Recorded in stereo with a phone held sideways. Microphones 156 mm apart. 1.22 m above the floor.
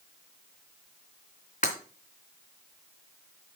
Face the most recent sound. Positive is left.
turn(degrees=50)  # may be behind; listen again after turning